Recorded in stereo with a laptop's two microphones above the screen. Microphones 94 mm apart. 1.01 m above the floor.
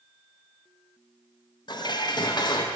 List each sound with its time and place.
1.7 s dishes clattering: 50° left (ahead or behind), 0.5 m